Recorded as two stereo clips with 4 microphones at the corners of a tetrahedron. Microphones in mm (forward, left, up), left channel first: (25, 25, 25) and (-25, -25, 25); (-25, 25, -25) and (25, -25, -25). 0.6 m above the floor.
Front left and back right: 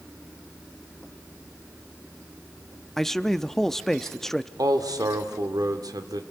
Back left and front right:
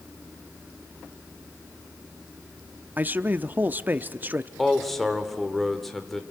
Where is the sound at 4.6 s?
140° right, 1.7 m.